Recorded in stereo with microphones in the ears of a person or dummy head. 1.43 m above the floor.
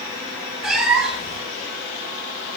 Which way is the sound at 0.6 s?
Centre (ahead or behind).